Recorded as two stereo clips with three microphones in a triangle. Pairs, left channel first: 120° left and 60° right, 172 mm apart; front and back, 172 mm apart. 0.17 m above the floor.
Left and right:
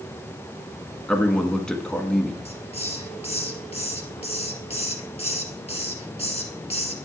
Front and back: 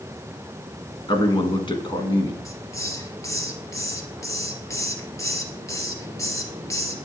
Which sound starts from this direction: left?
A hiss, at 2.5 s.